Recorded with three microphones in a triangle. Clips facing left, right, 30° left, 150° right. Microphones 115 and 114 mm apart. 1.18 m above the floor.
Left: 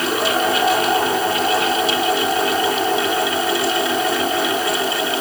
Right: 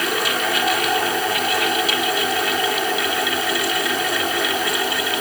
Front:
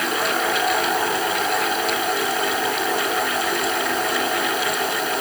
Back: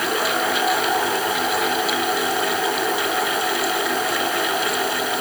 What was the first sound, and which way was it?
Only background noise.